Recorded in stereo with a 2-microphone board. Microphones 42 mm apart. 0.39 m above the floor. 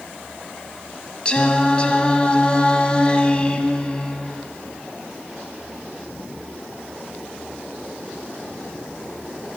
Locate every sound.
1.2 s singing: 25° left (ahead or behind), 1.1 m